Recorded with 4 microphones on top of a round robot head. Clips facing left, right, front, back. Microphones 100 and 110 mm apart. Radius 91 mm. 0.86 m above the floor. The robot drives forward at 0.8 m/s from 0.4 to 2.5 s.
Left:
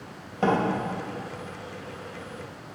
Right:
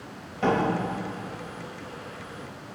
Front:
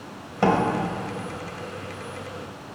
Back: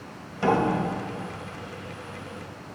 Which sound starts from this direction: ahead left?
A door slam, at 0.4 s.